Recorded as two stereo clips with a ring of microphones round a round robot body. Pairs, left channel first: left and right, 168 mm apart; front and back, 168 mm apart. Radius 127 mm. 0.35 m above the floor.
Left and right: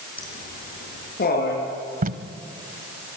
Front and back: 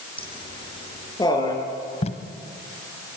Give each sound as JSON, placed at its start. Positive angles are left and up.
{"t": 0.2, "sound": "laughter", "azimuth_deg": 60, "distance_m": 7.0}
{"t": 2.0, "sound": "tape being pulled", "azimuth_deg": -55, "distance_m": 1.2}